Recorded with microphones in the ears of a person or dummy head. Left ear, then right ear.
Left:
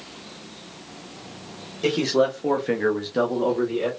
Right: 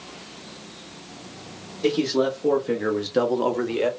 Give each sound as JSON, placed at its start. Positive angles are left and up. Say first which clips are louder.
{"t": 1.8, "sound": "a man speaking", "louder": "left 1 dB", "side_deg": 60, "distance_m": 1.0}